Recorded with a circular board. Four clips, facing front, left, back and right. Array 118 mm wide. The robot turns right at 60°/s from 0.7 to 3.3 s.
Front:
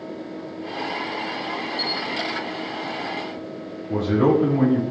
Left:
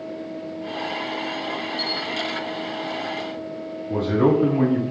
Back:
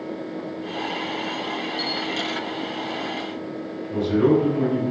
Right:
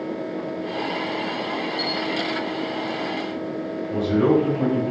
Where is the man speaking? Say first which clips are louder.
Even, even; 40° left, 2.5 m.